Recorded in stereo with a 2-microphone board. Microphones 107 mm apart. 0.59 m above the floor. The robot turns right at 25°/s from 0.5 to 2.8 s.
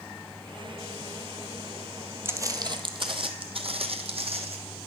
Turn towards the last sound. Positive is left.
turn(degrees=-70)  # may be behind; listen again after turning